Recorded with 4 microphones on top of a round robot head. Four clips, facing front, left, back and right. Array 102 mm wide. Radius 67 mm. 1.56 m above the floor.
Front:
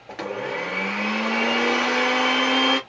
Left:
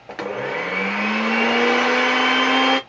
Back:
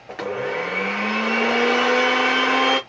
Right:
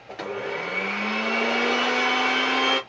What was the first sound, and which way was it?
A blender, 105° left.